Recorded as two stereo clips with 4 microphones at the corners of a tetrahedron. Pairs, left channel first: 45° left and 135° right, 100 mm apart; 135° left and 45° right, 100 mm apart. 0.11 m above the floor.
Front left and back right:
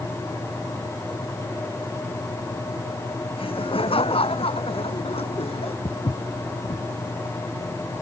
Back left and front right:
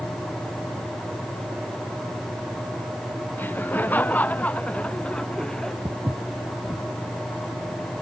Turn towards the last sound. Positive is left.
turn(degrees=15)